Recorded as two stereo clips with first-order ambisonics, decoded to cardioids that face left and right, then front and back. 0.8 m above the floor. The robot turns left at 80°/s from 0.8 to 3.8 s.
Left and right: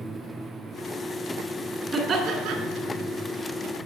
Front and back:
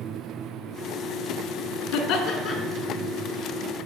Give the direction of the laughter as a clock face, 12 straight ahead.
1 o'clock.